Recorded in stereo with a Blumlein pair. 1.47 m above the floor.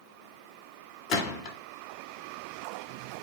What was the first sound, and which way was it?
A gunshot, 35° left.